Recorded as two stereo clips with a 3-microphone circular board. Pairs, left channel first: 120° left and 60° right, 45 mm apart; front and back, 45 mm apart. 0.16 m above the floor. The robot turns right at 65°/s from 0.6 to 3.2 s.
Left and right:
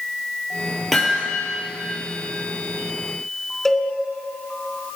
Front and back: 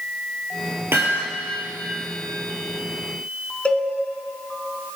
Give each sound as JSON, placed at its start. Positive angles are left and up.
{"t": 0.9, "sound": "hammering", "azimuth_deg": -155, "distance_m": 4.0}
{"t": 3.6, "sound": "a cowbell", "azimuth_deg": 45, "distance_m": 2.0}